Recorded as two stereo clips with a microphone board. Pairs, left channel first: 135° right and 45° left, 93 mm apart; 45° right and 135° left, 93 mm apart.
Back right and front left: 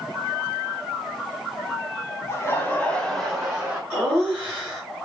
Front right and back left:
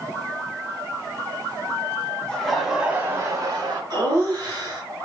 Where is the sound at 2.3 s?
115° right, 1.2 m; by 3.8 s 115° left, 1.4 m.